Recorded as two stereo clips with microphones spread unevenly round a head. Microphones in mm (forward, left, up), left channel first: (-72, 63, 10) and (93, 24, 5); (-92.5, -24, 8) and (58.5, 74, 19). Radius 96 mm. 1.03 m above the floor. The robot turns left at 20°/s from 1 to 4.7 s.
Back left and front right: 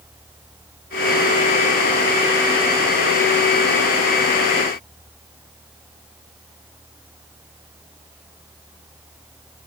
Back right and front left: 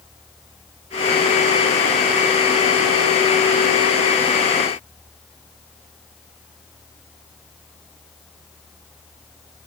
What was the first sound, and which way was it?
Only background noise.